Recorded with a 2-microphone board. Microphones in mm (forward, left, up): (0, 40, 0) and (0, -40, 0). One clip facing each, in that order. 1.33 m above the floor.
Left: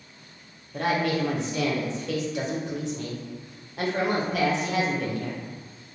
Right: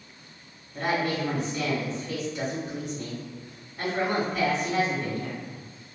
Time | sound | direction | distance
0.7 | a woman speaking | 80° left | 0.7 m